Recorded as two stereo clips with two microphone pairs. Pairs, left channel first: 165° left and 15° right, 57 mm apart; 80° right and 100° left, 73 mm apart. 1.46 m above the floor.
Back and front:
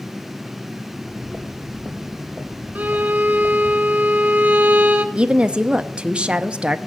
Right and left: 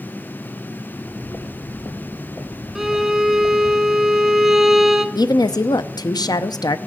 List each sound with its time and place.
0.9 s footsteps: 125° right, 2.5 m
2.8 s a violin: 15° left, 1.2 m
5.2 s a woman speaking: 85° right, 0.6 m